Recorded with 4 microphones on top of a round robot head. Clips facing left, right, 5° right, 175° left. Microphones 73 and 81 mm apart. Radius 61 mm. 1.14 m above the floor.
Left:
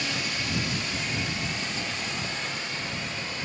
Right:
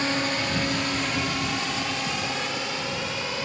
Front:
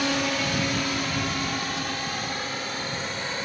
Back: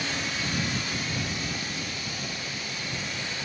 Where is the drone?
30° right; by 3.5 s 70° right.